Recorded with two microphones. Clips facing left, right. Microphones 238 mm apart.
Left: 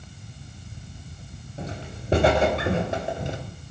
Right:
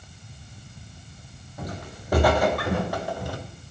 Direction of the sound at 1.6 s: 25° left (ahead or behind).